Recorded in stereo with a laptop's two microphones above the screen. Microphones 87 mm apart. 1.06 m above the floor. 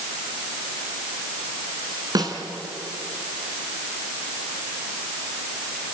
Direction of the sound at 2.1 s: 50° right (ahead or behind).